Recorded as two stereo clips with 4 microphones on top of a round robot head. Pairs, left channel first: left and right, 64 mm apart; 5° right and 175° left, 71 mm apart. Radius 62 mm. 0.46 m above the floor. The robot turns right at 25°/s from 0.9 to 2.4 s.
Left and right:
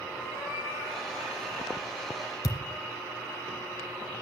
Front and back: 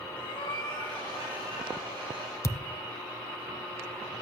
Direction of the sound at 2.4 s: 50° left.